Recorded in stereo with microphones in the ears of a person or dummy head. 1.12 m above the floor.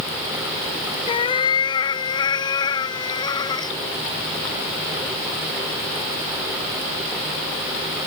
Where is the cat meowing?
25° left (ahead or behind); by 3.7 s 15° left (ahead or behind).